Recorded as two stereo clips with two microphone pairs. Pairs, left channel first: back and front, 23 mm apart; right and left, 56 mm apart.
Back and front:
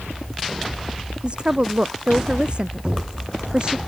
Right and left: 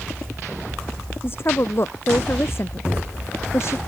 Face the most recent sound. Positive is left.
turn(degrees=-50)